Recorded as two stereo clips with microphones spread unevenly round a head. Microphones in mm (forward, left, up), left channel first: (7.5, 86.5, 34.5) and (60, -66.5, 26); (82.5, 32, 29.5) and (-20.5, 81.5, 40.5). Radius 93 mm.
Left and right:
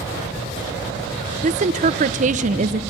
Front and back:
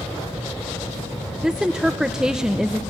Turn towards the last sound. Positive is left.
turn(degrees=-120)